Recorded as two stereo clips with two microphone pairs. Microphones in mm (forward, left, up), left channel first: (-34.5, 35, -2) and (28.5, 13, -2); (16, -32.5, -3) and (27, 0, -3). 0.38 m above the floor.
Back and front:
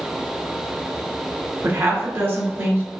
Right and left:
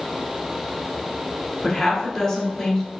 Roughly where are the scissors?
I don't hear scissors.